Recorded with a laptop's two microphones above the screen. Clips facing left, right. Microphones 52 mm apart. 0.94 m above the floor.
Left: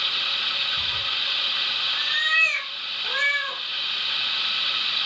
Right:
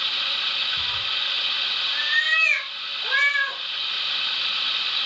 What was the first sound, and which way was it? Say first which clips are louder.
A cat meowing: even; 45° right (ahead or behind).